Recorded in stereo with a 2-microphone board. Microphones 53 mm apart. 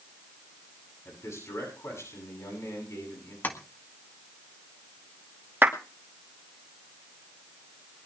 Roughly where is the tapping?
Left.